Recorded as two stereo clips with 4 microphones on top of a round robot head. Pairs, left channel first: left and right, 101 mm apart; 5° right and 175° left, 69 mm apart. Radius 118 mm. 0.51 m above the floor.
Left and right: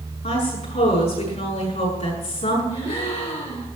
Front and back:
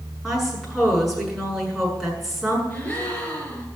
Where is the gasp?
70° left, 4 m.